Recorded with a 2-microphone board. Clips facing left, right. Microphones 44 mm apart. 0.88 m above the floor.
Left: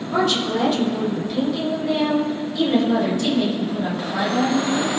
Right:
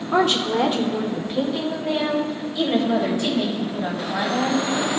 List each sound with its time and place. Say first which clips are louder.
0.1 s a woman speaking: right 1 dB; 40° right (ahead or behind), 2.5 m; by 4.9 s 20° right (ahead or behind), 5.5 m